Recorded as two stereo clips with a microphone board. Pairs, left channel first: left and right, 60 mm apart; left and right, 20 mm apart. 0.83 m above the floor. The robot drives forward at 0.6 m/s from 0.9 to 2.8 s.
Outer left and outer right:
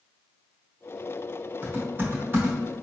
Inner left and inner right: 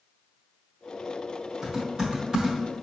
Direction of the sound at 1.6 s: 35° right (ahead or behind).